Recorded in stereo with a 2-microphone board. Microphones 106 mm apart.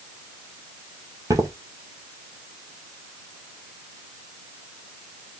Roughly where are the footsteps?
Right.